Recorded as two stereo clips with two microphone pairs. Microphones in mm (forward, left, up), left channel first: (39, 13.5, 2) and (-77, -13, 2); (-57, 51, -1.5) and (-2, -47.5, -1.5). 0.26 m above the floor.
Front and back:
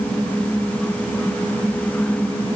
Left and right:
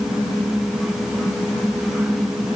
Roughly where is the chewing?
No chewing in this recording.